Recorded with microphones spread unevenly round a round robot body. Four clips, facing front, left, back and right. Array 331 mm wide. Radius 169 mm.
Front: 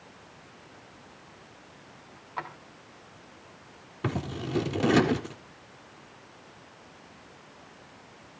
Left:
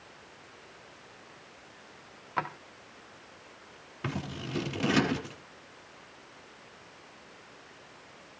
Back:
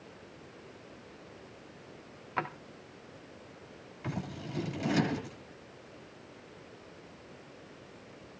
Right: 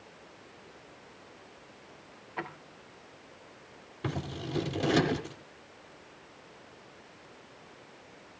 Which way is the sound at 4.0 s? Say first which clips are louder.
Right 1 dB, front 7 dB; 5° left.